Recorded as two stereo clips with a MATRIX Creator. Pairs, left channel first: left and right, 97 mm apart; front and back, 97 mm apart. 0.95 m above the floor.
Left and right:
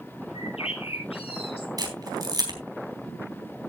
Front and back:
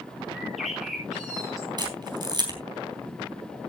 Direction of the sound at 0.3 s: 90° left.